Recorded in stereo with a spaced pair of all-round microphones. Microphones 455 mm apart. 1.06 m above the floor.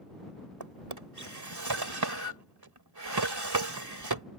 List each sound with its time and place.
0.6 s a drawer: 55° right (ahead or behind)